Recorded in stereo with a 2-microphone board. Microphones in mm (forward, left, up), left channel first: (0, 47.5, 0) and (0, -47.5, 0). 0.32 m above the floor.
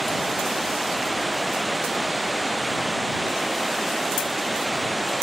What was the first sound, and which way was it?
Running water, centre (ahead or behind).